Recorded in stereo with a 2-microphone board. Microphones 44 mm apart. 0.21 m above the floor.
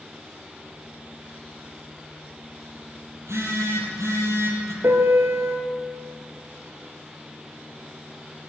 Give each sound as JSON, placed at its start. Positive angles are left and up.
{"t": 3.1, "sound": "a phone buzzing", "side_deg": -75, "distance_m": 6.0}
{"t": 4.8, "sound": "a piano", "side_deg": -70, "distance_m": 3.0}